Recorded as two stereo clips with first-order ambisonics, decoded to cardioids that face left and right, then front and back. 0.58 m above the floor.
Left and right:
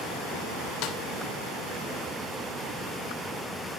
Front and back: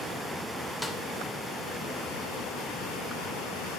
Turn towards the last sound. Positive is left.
turn(degrees=90)